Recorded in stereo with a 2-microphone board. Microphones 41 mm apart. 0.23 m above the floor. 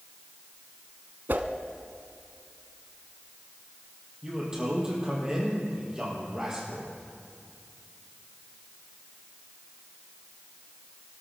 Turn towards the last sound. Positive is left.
turn(degrees=-15)  # may be behind; listen again after turning